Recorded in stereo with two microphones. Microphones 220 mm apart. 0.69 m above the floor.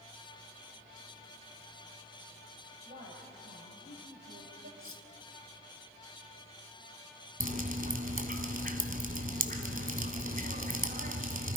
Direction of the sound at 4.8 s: 75° left (ahead or behind).